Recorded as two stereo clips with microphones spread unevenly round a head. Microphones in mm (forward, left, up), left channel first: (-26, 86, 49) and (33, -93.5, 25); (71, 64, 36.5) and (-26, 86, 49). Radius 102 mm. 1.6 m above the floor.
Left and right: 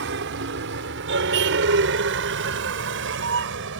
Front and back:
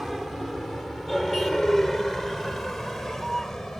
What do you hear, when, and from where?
0.0 s a vehicle: 105° right